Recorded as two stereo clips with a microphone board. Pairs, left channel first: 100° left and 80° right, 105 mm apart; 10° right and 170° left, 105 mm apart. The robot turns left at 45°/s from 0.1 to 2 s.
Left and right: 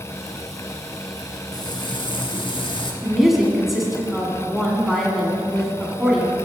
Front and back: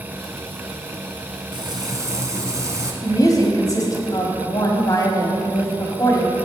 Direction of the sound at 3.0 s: 5° left.